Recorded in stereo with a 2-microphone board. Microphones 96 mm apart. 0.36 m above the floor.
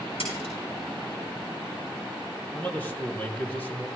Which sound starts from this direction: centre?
A man speaking, at 2.5 s.